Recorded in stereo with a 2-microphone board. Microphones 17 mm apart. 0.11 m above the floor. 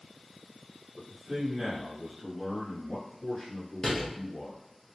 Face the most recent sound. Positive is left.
turn(degrees=35)  # may be behind; listen again after turning